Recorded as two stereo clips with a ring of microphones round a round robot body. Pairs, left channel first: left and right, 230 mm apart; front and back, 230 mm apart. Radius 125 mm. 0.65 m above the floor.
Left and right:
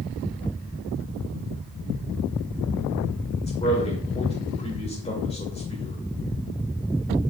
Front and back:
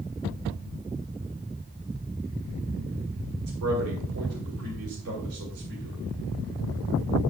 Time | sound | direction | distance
3.5 | a man speaking | 155° left | 2 m